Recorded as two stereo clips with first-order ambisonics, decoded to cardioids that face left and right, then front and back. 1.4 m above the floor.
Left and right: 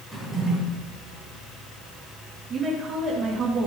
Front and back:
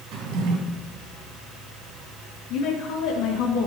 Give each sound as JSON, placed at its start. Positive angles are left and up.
{"t": 0.1, "sound": "a drawer", "azimuth_deg": 180, "distance_m": 2.5}
{"t": 2.5, "sound": "a woman speaking", "azimuth_deg": -25, "distance_m": 1.7}